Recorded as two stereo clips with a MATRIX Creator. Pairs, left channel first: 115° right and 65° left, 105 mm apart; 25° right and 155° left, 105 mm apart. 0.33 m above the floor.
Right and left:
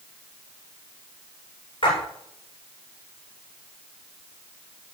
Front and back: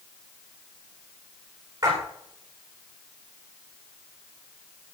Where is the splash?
150° right, 9.5 m.